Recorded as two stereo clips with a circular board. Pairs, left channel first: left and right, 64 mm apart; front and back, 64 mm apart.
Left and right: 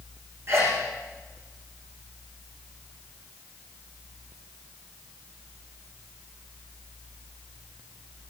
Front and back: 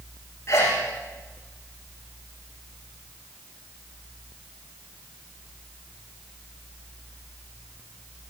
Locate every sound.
0.5 s a sneeze: 45° right, 8 m